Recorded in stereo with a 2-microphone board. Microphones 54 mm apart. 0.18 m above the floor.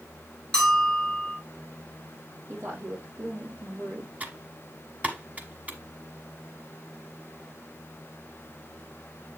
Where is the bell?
15° left (ahead or behind), 2.5 m.